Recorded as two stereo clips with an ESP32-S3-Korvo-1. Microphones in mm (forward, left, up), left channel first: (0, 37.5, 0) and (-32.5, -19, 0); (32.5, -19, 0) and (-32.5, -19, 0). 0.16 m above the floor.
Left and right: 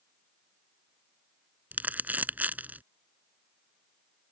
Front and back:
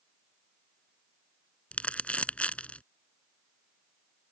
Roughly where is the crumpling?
Ahead right.